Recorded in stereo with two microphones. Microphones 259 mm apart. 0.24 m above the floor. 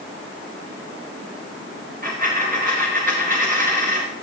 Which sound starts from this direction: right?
A dropped coin, at 2.0 s.